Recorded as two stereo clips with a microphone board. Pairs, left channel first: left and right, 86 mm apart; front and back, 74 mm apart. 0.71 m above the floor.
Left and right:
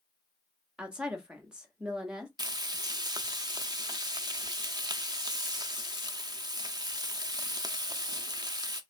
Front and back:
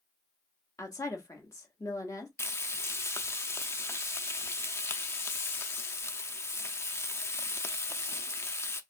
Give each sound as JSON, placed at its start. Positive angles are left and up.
{"t": 0.8, "sound": "a woman speaking", "azimuth_deg": -15, "distance_m": 1.3}
{"t": 2.4, "sound": "frying", "azimuth_deg": -55, "distance_m": 0.5}